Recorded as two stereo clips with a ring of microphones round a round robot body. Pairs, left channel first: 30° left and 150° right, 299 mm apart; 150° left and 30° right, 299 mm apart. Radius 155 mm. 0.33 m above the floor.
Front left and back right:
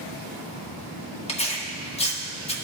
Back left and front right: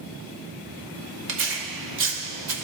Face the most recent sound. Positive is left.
turn(degrees=-30)